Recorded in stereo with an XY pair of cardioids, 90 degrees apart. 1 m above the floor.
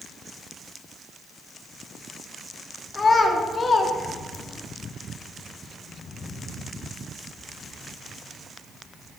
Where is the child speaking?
40° left, 1.2 m.